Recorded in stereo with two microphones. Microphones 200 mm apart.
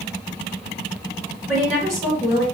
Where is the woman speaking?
15° right (ahead or behind), 1.9 m.